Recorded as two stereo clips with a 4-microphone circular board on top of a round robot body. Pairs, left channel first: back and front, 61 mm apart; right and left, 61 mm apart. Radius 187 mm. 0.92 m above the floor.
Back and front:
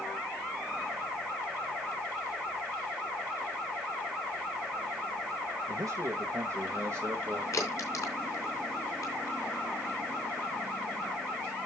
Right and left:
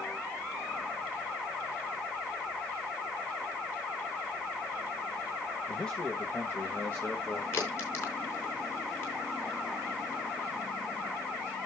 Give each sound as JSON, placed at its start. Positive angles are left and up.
{"t": 5.7, "sound": "a man speaking", "azimuth_deg": -10, "distance_m": 1.5}
{"t": 7.5, "sound": "a crack", "azimuth_deg": -140, "distance_m": 3.5}